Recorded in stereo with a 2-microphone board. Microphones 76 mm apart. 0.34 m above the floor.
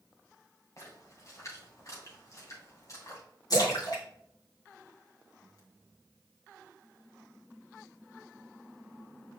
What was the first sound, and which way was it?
A splash, 45° left (ahead or behind).